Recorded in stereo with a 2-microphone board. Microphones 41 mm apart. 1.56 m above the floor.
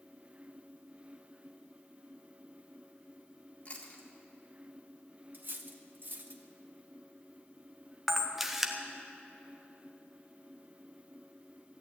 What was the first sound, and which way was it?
Chewing, 45° left (ahead or behind).